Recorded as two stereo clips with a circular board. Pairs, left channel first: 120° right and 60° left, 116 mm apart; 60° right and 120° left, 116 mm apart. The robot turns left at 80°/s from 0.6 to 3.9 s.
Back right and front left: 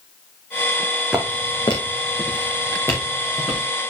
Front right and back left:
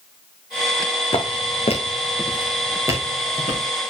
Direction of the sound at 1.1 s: 25° right.